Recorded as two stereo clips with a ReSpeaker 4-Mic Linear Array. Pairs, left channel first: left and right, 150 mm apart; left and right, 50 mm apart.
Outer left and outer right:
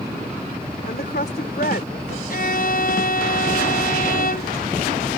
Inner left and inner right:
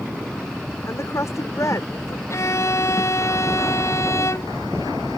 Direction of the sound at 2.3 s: 70° left (ahead or behind).